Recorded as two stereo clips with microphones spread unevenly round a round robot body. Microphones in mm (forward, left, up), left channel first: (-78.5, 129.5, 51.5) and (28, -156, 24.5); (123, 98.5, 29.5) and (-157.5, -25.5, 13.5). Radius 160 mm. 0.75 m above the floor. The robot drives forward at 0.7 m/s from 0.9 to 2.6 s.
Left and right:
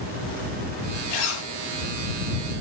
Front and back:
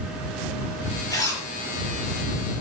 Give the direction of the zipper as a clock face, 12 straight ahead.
9 o'clock.